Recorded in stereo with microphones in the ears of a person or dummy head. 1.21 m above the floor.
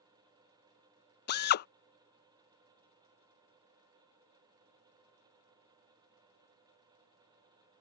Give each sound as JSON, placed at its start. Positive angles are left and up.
{"t": 1.3, "sound": "a drill", "side_deg": 55}